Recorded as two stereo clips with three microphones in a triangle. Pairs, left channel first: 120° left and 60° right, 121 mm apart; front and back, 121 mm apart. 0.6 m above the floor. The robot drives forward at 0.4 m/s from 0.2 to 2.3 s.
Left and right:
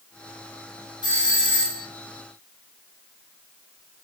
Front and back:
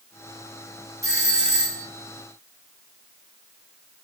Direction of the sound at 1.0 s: 140° left.